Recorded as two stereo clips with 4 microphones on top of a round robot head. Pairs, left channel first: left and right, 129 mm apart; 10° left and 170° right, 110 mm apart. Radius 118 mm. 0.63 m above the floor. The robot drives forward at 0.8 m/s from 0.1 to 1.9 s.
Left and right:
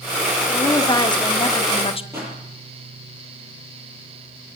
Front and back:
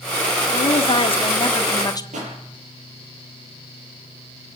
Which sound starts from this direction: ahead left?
A woman speaking, at 0.5 s.